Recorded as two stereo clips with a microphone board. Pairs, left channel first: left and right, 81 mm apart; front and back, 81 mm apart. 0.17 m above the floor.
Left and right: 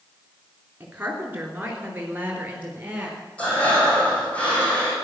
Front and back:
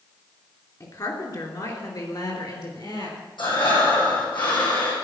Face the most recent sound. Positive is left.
turn(degrees=15)